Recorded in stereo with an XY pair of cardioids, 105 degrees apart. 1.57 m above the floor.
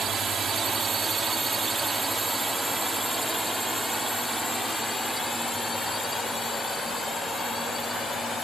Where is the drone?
50° right; by 8.4 s 30° left.